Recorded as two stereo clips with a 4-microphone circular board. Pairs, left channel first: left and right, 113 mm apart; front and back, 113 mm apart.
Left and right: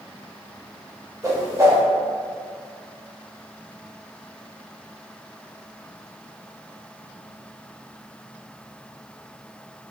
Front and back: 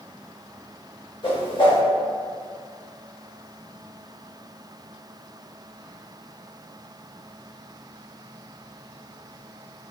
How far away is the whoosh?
About 0.7 m.